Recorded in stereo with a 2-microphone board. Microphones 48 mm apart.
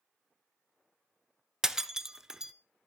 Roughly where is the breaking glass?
Centre.